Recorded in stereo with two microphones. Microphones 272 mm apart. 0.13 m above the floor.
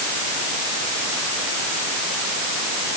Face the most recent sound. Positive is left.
No sound to turn to.